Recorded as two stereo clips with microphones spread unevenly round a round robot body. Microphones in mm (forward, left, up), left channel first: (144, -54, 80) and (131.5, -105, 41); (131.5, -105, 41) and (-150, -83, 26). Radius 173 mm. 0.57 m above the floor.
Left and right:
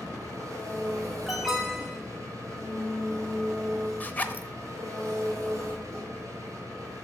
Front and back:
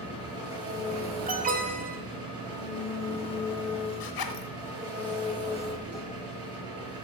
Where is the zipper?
15° left, 1.1 m.